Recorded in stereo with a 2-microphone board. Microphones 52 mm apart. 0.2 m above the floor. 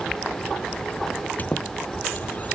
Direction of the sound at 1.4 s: 35° left (ahead or behind).